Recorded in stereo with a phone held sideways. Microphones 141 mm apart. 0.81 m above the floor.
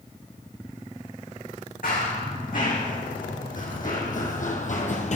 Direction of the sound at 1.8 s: 75° left (ahead or behind).